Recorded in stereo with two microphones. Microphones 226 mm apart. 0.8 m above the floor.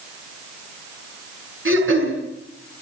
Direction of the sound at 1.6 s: 65° right (ahead or behind).